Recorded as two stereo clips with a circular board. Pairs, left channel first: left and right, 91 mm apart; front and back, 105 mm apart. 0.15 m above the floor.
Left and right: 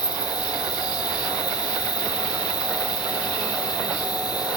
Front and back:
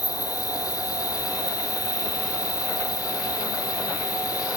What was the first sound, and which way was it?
An insect, 50° left.